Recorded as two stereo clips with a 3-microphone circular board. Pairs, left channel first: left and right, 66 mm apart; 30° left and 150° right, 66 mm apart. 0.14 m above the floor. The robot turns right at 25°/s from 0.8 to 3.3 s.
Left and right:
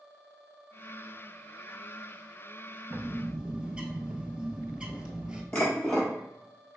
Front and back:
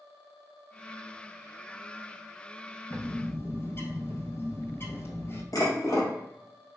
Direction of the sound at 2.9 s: 25° right.